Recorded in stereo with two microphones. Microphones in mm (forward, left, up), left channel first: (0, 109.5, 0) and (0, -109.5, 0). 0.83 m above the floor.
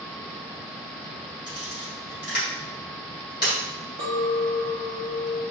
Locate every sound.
1.5 s a camera shutter: 50° left (ahead or behind), 1.7 m
4.0 s a clink: 65° left (ahead or behind), 0.8 m